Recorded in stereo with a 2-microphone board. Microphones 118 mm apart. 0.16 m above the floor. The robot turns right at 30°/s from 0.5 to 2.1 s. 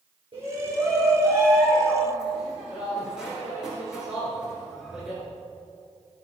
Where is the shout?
55° right, 3 m; by 5.2 s 5° right, 3 m.